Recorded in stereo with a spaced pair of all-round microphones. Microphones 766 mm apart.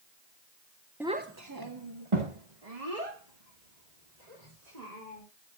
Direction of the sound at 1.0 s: Centre (ahead or behind).